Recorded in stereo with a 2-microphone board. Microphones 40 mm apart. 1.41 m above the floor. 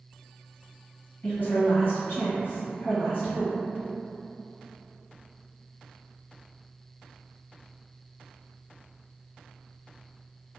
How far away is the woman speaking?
About 1.2 m.